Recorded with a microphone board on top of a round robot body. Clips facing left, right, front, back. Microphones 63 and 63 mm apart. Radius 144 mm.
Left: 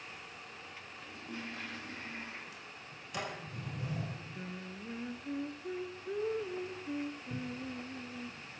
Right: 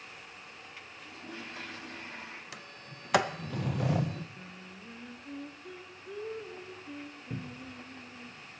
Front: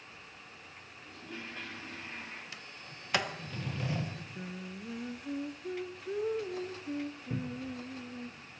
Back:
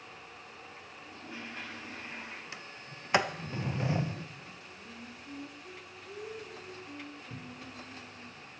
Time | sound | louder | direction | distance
1.0 | a toilet flushing | even, even | 100° right | 9 m
2.5 | a sliding door | right 2 dB, back 2 dB | 110° right | 0.6 m
4.3 | singing | left 4 dB, front 6 dB | 25° left | 1.0 m
7.3 | a cupboard door | left 2 dB, front 7 dB | 45° right | 0.6 m